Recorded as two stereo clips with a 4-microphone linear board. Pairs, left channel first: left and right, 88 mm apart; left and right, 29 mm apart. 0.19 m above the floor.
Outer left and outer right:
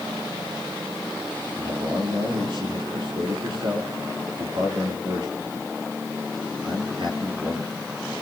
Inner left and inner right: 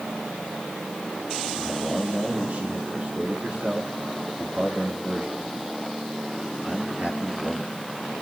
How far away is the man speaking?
About 4 m.